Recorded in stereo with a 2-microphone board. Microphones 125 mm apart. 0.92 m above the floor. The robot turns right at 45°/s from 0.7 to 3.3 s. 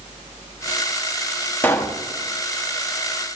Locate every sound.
1.6 s a pop: 15° left (ahead or behind), 1.3 m; by 2.0 s 30° left (ahead or behind), 1.3 m